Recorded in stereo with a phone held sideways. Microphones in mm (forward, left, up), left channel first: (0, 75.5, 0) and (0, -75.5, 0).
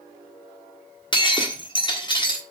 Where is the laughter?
No laughter in this recording.